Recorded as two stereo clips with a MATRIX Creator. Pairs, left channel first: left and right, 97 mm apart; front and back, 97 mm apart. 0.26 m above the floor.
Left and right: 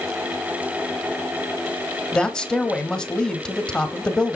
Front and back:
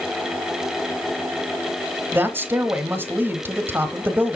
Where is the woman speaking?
155° left, 1.0 m.